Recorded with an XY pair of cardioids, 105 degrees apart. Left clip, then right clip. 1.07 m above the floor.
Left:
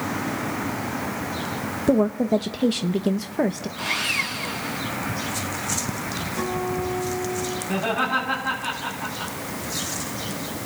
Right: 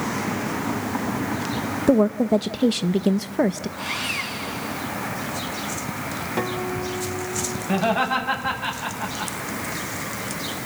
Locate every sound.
1.9 s a woman speaking: 15° right, 0.6 m
3.8 s sawing: 10° left, 4 m
6.4 s a guitar: 55° right, 2.5 m
7.7 s laughter: 45° right, 7.5 m